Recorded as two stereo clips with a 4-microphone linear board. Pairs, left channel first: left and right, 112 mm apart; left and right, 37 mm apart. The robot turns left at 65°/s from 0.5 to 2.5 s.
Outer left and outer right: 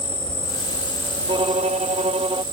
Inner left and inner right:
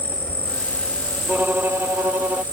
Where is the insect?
65° left; by 2.5 s 65° right.